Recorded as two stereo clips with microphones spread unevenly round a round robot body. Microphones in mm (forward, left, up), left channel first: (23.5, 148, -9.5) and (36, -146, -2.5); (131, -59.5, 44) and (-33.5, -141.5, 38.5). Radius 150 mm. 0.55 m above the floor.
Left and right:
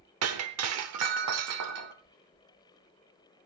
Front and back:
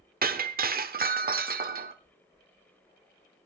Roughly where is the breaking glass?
Behind right.